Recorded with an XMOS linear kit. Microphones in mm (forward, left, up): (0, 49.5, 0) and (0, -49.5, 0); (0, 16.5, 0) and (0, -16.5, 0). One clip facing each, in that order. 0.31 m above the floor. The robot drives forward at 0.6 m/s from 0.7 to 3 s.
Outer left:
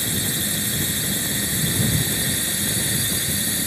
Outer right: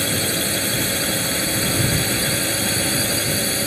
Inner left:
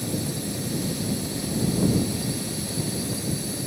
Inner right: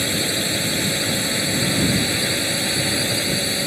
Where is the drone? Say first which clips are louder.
Outer right 5 dB, inner right 8 dB; 65° right (ahead or behind); by 3.7 s 60° right (ahead or behind).